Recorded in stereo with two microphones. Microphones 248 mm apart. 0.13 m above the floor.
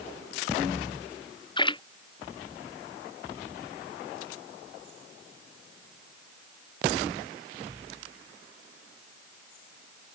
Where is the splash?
20° left (ahead or behind).